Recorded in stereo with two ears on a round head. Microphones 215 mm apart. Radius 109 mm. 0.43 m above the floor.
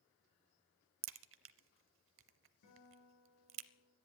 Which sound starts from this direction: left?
A guitar, at 2.6 s.